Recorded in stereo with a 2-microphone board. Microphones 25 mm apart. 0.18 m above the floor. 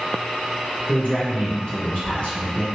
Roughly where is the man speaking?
Left.